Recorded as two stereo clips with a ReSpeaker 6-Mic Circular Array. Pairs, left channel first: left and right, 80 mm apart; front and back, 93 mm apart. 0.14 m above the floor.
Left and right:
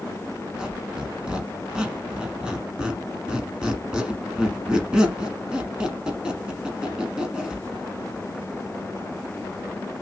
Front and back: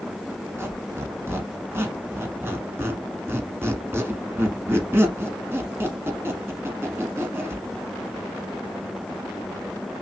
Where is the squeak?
155° right, 1.1 m.